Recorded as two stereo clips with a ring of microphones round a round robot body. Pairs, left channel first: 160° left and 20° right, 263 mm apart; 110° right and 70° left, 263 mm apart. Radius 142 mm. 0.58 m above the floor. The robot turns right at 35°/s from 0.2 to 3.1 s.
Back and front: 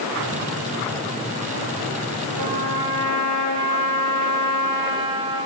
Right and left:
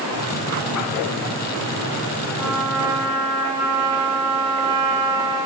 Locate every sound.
2.4 s a trumpet: 25° right, 0.7 m; by 5.5 s straight ahead, 0.7 m